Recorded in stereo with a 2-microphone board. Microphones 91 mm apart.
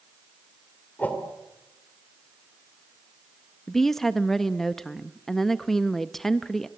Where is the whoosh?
15° left (ahead or behind), 3 m.